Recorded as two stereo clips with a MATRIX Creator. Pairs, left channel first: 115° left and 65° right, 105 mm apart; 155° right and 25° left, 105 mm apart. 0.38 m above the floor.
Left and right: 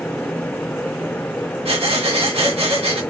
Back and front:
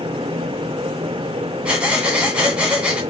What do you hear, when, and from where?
1.6 s breathing: 55° right, 1.9 m